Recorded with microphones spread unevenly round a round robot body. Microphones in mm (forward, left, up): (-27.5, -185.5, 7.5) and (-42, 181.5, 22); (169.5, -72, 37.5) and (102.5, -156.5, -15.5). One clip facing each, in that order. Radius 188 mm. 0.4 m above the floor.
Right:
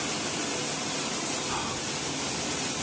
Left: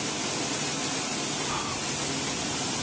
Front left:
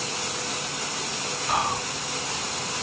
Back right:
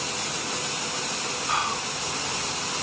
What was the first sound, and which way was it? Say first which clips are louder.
Whispering: even, front left 3 dB; straight ahead.